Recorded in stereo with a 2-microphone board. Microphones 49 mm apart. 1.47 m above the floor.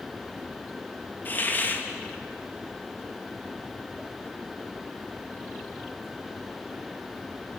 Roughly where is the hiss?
Left.